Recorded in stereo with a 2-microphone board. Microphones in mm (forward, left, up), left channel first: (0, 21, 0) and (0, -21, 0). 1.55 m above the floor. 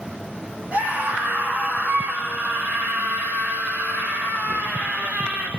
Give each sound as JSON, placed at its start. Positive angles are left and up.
{"t": 0.7, "sound": "a scream", "side_deg": -35, "distance_m": 8.0}